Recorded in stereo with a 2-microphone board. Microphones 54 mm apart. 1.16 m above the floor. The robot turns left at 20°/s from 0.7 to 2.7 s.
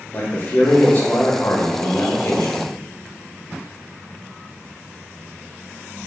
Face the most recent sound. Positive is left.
turn(degrees=95)